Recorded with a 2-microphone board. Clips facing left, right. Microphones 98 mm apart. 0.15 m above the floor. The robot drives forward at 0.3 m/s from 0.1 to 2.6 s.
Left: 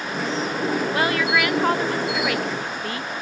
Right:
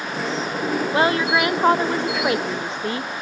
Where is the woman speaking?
25° right (ahead or behind); by 3.1 s 30° right (ahead or behind).